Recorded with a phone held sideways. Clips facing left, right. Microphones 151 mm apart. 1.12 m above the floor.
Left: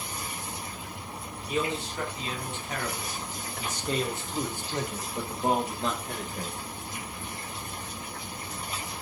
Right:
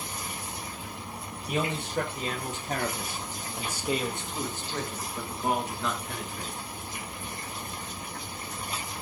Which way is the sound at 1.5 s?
60° right (ahead or behind).